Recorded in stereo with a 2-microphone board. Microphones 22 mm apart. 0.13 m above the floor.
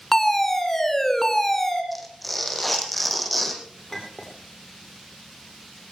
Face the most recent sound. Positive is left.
turn(degrees=15)  # may be behind; listen again after turning